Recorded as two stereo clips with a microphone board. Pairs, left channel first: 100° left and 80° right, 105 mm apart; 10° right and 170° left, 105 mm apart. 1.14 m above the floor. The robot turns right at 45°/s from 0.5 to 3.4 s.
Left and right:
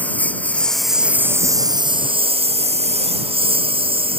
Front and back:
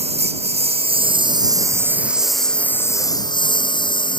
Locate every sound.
0.0 s a lawn mower: 175° left; by 4.2 s 50° right